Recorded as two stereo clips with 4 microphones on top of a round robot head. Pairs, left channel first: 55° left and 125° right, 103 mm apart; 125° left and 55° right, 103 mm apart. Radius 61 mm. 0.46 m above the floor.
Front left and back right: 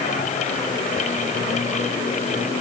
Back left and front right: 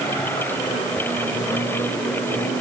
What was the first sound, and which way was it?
Only background noise.